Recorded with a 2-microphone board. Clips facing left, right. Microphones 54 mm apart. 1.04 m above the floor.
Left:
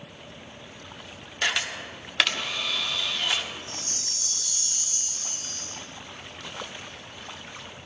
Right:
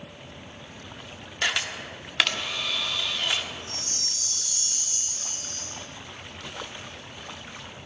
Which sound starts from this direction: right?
A chime, at 3.7 s.